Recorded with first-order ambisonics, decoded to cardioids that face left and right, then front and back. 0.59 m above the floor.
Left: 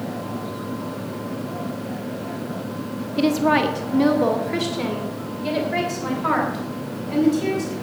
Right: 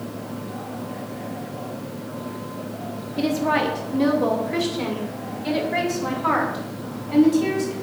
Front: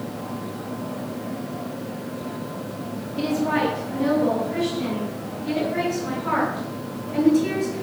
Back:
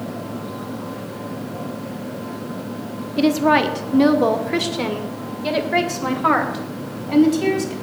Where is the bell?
I don't hear a bell.